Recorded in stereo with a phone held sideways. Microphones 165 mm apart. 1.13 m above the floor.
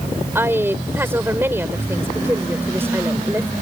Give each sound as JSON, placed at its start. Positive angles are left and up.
{"t": 0.3, "sound": "a woman speaking", "side_deg": -15}